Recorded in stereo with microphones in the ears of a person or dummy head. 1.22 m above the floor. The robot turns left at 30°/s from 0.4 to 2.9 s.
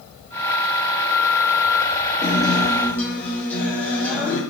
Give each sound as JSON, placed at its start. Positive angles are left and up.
{"t": 2.2, "sound": "a guitar", "side_deg": -10, "distance_m": 0.7}